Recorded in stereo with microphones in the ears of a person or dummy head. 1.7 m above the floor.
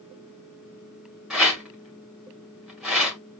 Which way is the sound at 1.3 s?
Centre (ahead or behind).